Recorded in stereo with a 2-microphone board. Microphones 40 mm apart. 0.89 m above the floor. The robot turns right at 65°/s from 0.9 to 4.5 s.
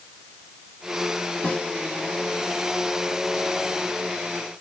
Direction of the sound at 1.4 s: 35° left (ahead or behind).